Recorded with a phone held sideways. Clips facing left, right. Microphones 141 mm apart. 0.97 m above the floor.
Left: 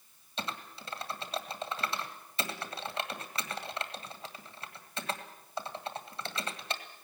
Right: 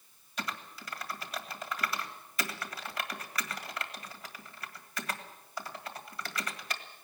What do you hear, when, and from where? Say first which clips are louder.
0.4 s typing on a keyboard: even; 25° left (ahead or behind), 1.7 m